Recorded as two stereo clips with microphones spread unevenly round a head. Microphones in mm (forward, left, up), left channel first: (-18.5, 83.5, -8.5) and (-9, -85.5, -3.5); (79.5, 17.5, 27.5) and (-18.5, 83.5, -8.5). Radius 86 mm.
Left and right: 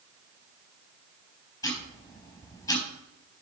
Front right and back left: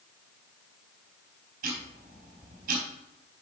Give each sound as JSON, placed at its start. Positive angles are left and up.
{"t": 1.6, "sound": "ticking", "azimuth_deg": 165, "distance_m": 4.0}